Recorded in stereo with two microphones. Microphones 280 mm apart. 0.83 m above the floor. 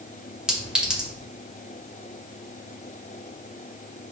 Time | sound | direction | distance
0.5 | a clink | 5° right (ahead or behind) | 2.5 m